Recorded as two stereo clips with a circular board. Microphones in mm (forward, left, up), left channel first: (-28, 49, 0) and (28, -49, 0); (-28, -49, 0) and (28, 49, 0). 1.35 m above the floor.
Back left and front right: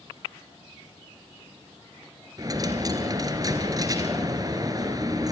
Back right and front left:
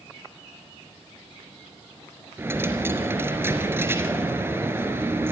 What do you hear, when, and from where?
2.4 s a dropped coin: 10° right, 3 m